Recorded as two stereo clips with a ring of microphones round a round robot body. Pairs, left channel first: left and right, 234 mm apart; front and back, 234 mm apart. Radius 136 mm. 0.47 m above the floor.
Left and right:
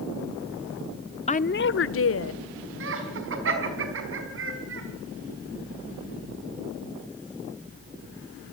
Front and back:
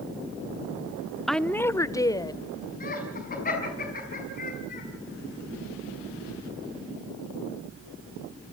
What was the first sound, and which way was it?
A woman speaking, 90° left.